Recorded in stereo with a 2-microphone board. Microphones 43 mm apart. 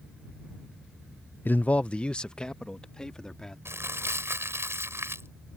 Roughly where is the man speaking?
Left.